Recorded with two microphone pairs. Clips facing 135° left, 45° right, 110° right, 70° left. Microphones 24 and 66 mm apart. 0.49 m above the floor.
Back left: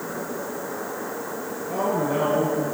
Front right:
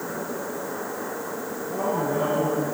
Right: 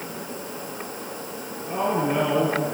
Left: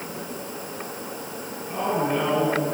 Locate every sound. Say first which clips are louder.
1.6 s a man speaking: back left 2 dB, right 1 dB; 165° left, 8 m